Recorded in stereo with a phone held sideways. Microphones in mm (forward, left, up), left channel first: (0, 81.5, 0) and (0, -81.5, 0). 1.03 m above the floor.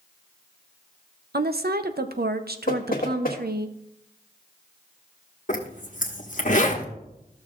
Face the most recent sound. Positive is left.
turn(degrees=50)  # may be behind; listen again after turning